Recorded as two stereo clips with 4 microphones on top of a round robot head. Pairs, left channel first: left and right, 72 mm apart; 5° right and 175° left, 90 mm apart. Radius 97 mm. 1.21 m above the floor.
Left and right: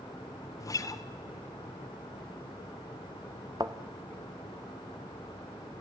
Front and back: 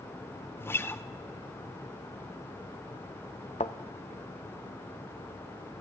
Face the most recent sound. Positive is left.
turn(degrees=-35)